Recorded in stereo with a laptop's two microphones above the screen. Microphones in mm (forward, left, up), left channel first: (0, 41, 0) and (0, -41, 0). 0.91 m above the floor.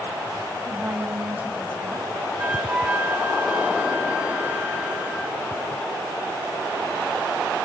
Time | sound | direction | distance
0.6 | a woman speaking | 25° right (ahead or behind) | 6 m
2.4 | a flute | 15° right (ahead or behind) | 1.9 m